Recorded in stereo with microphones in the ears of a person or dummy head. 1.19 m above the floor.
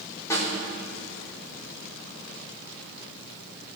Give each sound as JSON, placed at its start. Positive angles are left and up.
{"t": 0.3, "sound": "a snare drum", "side_deg": 15, "distance_m": 4.0}